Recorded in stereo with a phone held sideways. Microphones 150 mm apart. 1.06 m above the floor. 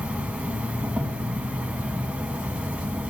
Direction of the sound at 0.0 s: 10° right (ahead or behind).